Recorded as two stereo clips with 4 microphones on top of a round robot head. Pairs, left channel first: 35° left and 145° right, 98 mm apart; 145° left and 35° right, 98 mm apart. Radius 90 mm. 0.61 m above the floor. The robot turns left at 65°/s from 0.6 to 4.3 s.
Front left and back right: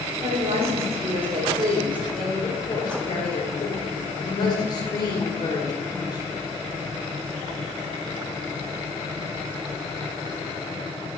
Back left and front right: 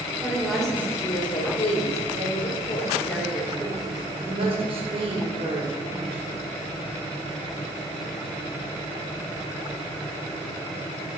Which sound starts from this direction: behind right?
A woman speaking, at 0.2 s.